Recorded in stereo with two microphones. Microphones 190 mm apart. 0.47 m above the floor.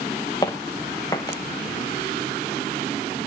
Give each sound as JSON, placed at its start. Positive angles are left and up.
{"t": 0.4, "sound": "footsteps", "side_deg": 20, "distance_m": 1.8}